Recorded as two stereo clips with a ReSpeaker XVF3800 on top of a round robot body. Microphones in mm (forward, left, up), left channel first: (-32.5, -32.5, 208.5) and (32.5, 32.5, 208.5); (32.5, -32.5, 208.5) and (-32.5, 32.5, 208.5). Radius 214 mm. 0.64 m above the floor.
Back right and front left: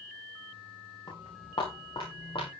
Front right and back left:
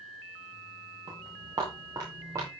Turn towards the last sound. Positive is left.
turn(degrees=-170)